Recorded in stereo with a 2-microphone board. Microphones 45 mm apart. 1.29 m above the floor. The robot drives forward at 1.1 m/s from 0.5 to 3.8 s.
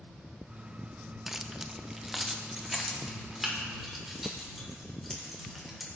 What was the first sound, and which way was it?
Keys jangling, 5° right (ahead or behind).